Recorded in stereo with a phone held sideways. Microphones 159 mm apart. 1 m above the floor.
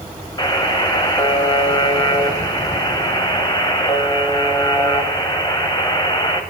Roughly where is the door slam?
I don't hear a door slam.